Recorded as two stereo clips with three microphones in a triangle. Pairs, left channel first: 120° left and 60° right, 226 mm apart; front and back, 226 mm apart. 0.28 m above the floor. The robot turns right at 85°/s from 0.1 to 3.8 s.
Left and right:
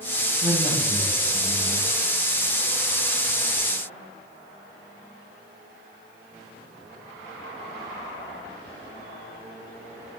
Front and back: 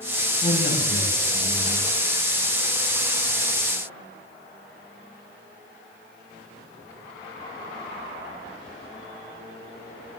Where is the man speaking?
15° right, 7.5 m; by 1.9 s 110° left, 7.5 m.